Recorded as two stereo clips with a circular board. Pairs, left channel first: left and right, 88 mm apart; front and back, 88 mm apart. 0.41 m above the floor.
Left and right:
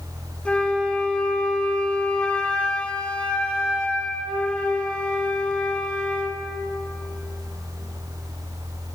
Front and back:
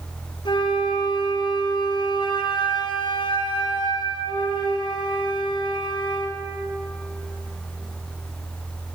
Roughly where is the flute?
Ahead.